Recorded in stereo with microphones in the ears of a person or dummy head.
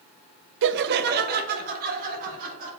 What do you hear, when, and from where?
0.6 s laughter: 65° right (ahead or behind), 0.5 m; by 2.7 s 50° right (ahead or behind), 2 m